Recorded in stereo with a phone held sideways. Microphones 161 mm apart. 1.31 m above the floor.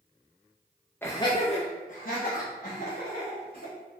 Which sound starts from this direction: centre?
Laughter, at 1.0 s.